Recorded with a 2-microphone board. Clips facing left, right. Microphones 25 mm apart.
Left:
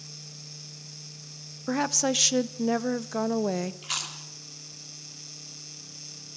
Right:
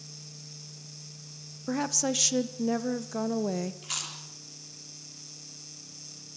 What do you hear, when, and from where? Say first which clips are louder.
1.7 s a woman speaking: left 3 dB; 20° left (ahead or behind), 0.8 m
3.8 s chewing: left 3 dB; 15° left (ahead or behind), 3 m